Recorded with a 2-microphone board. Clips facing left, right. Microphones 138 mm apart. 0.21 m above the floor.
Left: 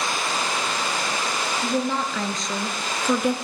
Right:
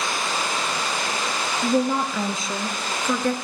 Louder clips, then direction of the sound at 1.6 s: Right 5 dB; 15° right (ahead or behind).